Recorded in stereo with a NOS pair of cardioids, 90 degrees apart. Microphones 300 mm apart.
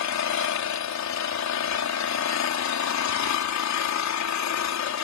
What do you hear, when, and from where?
0.0 s an engine running: 65° left